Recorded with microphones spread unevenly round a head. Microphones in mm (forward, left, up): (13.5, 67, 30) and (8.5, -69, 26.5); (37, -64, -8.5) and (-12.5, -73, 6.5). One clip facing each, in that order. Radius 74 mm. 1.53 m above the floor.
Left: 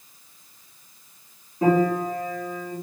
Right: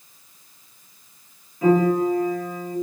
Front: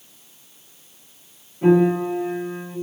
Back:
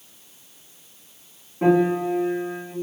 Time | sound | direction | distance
1.6 | a piano | 150° left | 2.5 m